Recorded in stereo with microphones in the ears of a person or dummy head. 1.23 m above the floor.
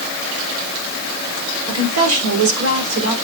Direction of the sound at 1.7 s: 85° right.